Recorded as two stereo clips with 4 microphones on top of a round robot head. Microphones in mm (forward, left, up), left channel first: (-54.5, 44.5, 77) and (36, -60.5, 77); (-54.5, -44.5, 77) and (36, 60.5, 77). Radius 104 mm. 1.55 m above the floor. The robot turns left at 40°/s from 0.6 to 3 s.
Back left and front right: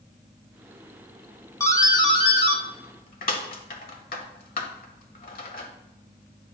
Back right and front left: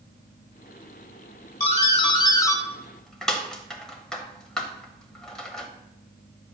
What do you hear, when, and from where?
1.6 s a doorbell: 160° right, 1.2 m; by 5.7 s 145° left, 1.2 m